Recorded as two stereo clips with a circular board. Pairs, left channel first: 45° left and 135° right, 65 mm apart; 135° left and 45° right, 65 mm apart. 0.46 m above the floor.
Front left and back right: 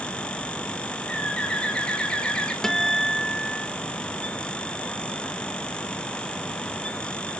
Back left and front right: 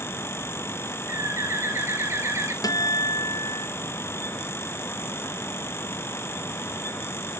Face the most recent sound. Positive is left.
turn(degrees=125)